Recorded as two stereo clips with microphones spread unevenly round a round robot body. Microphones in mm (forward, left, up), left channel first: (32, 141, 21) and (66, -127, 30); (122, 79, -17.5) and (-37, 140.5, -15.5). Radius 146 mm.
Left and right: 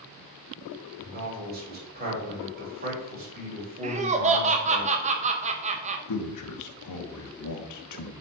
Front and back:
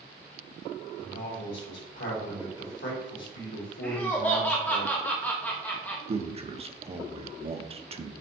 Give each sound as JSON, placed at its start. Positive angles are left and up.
{"t": 1.0, "sound": "a man speaking", "azimuth_deg": -30, "distance_m": 3.5}
{"t": 3.8, "sound": "laughter", "azimuth_deg": -90, "distance_m": 0.7}
{"t": 6.1, "sound": "a man speaking", "azimuth_deg": 105, "distance_m": 1.2}